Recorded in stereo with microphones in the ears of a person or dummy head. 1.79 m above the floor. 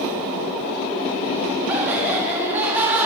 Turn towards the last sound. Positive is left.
turn(degrees=-10)  # may be behind; listen again after turning